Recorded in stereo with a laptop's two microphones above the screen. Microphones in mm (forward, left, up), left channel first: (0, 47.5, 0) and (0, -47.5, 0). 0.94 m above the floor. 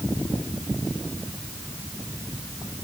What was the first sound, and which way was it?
Only background noise.